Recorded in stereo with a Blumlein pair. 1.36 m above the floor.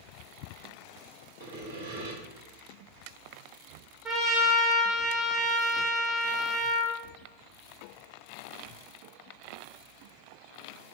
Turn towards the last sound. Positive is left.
turn(degrees=-10)